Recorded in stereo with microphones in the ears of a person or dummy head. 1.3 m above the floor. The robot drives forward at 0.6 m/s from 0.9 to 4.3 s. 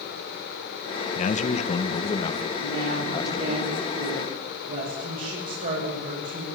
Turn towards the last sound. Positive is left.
turn(degrees=-45)  # may be behind; listen again after turning